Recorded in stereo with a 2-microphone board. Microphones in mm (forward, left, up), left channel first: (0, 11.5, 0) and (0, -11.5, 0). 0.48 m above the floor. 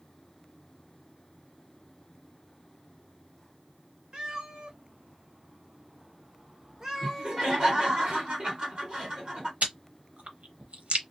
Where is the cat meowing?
40° right (ahead or behind), 0.9 m; by 7.6 s 15° right (ahead or behind), 1.1 m.